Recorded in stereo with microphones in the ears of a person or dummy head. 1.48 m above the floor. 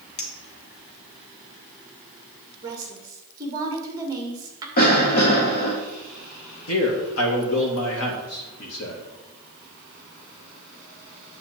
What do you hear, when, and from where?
0.2 s a clink: 45° left (ahead or behind), 1.5 m
2.6 s a woman speaking: 20° right (ahead or behind), 1.8 m
4.8 s a cough: 50° left (ahead or behind), 1.7 m
6.7 s a man speaking: 80° left, 2 m